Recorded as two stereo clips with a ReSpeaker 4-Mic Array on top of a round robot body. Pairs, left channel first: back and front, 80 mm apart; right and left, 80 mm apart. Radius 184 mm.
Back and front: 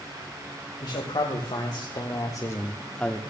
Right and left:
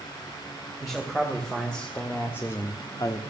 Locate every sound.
0.8 s a man speaking: straight behind, 2.5 m; by 3.2 s 95° right, 1.2 m